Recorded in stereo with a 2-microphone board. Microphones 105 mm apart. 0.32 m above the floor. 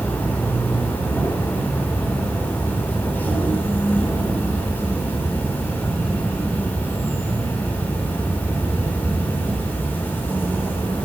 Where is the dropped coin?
No dropped coin in this recording.